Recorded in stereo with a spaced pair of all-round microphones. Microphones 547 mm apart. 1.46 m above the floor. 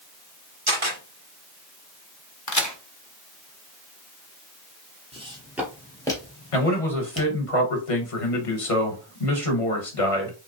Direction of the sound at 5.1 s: 10° right (ahead or behind).